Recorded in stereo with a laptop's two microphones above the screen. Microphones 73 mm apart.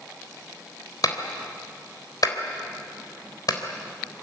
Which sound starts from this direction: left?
A clap, at 1.0 s.